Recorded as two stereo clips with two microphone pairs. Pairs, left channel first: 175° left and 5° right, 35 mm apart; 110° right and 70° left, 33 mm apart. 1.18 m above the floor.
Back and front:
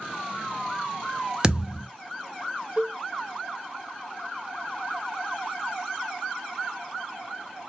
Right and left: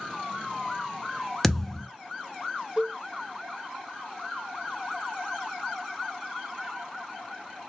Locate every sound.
1.4 s a thud: 30° right, 0.6 m
2.8 s a cowbell: 20° left, 0.6 m